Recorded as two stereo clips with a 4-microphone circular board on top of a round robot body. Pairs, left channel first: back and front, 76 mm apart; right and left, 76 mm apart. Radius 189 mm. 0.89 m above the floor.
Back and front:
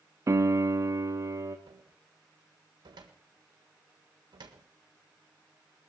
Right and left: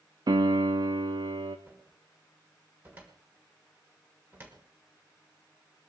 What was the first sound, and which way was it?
A piano, 55° left.